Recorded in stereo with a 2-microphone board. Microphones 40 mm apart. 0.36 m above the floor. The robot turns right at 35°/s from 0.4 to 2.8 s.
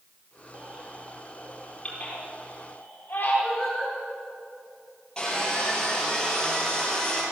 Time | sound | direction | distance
0.5 | a baby crying | 25° right (ahead or behind) | 4.5 m
3.4 | singing | 15° left (ahead or behind) | 5 m
5.2 | sawing | 20° left (ahead or behind) | 5 m